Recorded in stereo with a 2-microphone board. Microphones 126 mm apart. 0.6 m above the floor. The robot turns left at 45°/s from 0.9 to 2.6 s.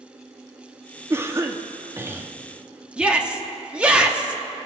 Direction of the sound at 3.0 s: 10° right (ahead or behind).